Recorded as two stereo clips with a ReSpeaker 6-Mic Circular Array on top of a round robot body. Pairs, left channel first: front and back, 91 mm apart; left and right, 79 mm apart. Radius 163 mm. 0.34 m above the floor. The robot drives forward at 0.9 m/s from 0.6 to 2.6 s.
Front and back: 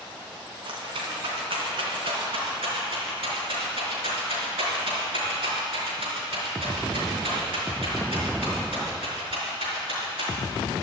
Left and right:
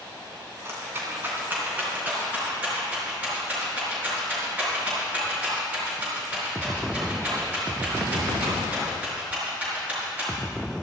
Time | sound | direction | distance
0.7 | a rattle | 150° right | 3 m